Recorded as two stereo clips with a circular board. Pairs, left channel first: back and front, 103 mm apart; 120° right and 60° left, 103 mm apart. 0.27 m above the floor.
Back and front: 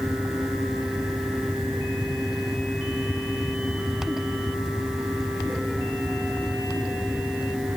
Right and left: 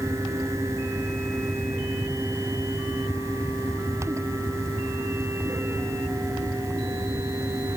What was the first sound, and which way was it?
Only background noise.